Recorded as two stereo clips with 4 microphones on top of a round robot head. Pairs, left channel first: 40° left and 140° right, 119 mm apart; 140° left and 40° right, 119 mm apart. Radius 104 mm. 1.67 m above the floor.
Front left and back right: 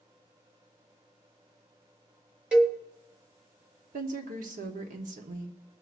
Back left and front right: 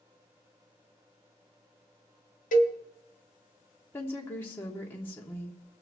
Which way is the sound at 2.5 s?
140° left.